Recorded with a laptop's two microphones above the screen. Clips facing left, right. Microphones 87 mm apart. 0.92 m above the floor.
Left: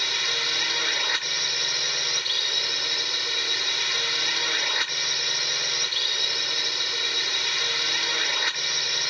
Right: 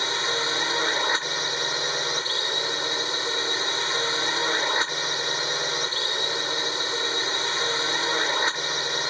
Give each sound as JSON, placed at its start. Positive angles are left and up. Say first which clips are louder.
{"t": 0.0, "sound": "a drone", "louder": "right 5 dB", "side_deg": -30}